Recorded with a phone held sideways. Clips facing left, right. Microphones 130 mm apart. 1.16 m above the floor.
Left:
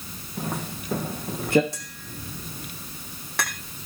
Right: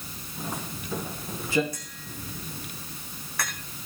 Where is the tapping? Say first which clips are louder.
Left 1 dB; 85° left, 9 m.